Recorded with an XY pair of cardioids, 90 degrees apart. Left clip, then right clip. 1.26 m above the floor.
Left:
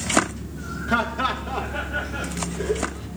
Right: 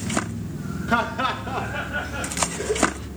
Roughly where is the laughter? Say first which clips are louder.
Even; ahead.